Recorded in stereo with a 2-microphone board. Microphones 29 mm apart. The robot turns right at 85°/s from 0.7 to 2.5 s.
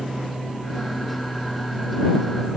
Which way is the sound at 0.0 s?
40° left.